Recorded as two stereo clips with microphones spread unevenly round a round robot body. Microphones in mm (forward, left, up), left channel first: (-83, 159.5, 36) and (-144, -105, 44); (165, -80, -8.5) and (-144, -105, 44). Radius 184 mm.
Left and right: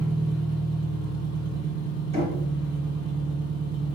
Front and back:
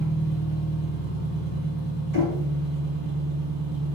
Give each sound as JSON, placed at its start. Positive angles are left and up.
{"t": 0.0, "sound": "an engine running", "azimuth_deg": 150, "distance_m": 2.0}
{"t": 2.1, "sound": "knocking", "azimuth_deg": -170, "distance_m": 1.9}